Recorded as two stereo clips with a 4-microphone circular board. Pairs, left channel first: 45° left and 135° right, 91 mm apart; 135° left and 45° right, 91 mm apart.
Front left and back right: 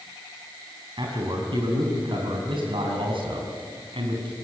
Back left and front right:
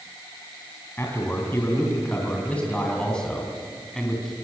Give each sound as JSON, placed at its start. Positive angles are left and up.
{"t": 1.0, "sound": "a man speaking", "azimuth_deg": -160, "distance_m": 4.0}